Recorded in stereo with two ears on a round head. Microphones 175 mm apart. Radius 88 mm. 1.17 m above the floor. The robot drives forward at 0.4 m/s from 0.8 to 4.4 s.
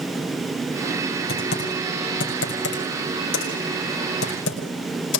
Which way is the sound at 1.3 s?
55° left (ahead or behind).